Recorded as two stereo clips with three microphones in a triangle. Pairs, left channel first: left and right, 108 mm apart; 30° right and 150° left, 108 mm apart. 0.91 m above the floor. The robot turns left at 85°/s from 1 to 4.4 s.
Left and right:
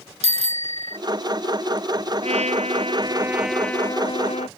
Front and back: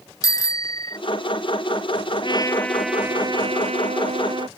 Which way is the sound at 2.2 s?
70° right.